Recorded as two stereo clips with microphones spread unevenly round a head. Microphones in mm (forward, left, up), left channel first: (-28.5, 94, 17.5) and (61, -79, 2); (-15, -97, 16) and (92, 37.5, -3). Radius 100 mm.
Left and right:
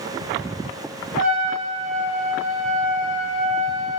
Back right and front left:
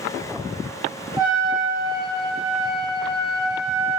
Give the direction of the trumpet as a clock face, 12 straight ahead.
12 o'clock.